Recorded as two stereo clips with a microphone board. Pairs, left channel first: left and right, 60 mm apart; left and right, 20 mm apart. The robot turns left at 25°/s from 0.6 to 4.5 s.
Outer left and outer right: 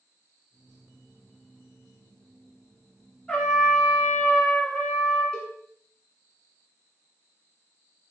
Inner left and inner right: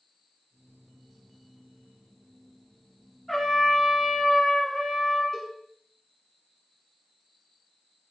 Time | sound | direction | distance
3.3 | a trumpet | 15° left (ahead or behind) | 1.7 m
5.3 | a cowbell | 15° left (ahead or behind) | 1.1 m